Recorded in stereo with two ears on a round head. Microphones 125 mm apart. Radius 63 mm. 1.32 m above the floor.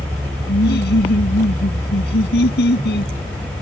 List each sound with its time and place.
0.5 s laughter: 85° left